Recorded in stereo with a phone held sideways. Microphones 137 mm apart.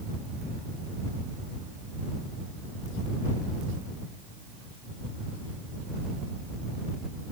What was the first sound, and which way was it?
Only background noise.